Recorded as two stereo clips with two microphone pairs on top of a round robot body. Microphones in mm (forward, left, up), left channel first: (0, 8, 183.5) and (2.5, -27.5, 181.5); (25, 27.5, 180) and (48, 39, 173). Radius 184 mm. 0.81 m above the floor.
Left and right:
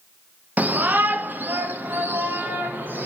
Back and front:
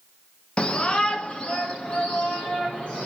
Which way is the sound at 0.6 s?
100° right.